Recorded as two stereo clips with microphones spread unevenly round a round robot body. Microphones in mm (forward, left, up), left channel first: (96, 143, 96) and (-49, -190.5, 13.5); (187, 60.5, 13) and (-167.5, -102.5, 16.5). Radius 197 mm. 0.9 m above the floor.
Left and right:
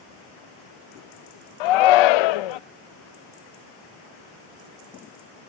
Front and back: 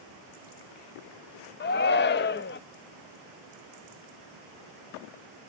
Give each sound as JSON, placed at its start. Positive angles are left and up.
{"t": 1.6, "sound": "a shout", "azimuth_deg": 85, "distance_m": 0.6}